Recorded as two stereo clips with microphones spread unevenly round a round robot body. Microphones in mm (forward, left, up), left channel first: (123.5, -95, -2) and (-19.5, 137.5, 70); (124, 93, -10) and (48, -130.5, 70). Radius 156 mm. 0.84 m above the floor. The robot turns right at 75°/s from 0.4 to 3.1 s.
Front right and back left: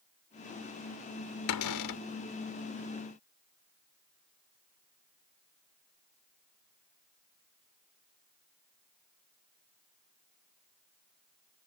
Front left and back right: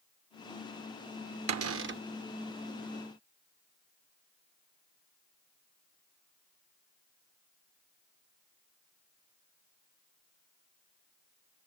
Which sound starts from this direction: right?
A cupboard door, at 1.5 s.